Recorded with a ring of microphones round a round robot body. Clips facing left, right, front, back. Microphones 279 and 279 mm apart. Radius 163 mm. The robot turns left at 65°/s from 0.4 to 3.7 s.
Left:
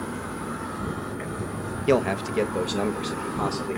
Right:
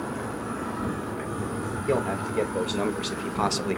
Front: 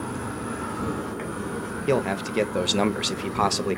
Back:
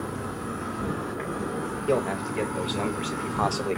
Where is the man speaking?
55° left, 0.5 m; by 3.8 s 65° right, 0.5 m.